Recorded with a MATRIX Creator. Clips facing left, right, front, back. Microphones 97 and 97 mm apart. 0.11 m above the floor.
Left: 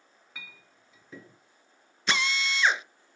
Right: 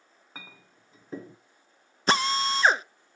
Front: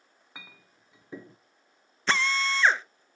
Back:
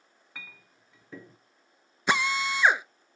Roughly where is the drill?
Right.